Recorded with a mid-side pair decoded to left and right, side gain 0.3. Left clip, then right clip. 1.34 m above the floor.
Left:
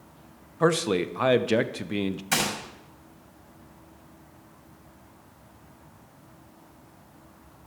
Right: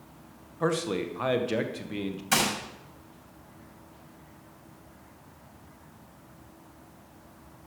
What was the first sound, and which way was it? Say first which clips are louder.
A man speaking: left 5 dB; 65° left.